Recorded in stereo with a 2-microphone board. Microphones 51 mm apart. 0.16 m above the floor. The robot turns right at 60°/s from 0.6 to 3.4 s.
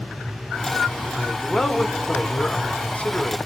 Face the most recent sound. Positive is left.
turn(degrees=115)